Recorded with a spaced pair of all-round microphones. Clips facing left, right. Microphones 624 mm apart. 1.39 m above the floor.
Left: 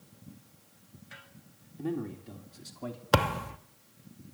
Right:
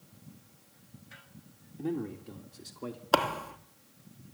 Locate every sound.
1.8 s a man speaking: centre (ahead or behind), 3 m; by 3.0 s 20° left (ahead or behind), 2.5 m
3.1 s a thud: 45° left (ahead or behind), 1.1 m